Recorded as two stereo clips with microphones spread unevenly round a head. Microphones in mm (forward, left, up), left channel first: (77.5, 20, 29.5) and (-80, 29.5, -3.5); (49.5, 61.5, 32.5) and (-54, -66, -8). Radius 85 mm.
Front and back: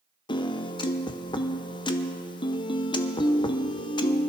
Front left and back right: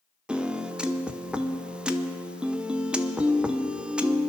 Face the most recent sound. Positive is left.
turn(degrees=-65)